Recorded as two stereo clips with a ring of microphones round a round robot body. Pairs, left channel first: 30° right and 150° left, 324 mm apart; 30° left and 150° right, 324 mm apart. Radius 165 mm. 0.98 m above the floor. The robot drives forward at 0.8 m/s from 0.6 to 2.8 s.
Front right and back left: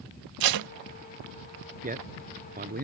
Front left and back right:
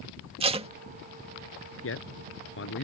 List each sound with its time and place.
0.4 s tape being pulled: 140° left
1.8 s a man speaking: 85° left